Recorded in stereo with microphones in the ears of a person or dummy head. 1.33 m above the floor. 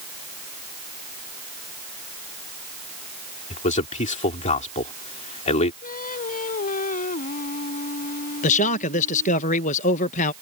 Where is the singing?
40° left (ahead or behind).